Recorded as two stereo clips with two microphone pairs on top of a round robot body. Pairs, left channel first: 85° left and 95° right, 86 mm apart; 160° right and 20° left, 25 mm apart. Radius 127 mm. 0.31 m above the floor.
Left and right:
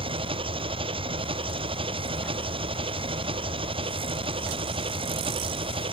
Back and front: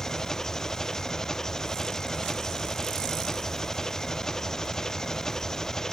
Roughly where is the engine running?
Right.